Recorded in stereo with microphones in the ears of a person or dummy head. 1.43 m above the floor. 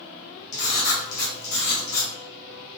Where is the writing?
60° left (ahead or behind), 2 m.